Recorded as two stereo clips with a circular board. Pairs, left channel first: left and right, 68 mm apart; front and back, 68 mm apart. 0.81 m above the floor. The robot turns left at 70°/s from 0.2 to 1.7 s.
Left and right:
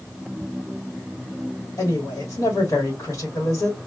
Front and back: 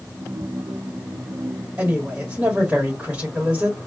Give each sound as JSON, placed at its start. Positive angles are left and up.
{"t": 1.8, "sound": "a woman speaking", "azimuth_deg": 115, "distance_m": 1.4}